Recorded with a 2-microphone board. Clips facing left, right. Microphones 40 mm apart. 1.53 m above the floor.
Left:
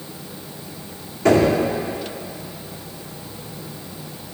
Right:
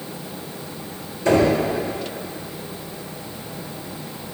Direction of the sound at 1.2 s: 80° left.